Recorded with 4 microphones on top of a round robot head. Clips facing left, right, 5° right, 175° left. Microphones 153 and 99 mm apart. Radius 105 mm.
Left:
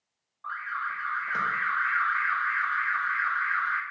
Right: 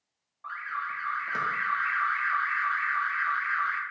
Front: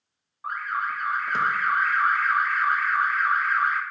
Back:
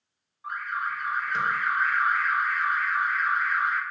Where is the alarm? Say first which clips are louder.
Left 1 dB, front 3 dB; 15° right, 0.6 m.